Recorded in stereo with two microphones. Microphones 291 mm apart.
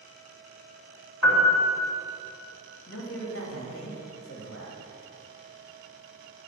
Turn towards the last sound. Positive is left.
turn(degrees=50)  # may be behind; listen again after turning